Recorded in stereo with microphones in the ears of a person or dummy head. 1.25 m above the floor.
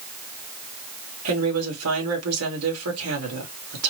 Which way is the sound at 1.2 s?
80° right.